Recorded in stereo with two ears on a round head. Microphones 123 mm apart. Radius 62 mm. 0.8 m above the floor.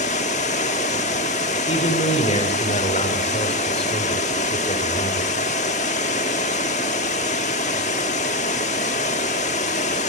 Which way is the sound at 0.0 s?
55° left (ahead or behind).